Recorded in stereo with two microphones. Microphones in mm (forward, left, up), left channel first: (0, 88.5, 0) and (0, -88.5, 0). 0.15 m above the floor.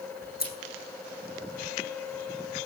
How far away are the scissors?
About 1.9 m.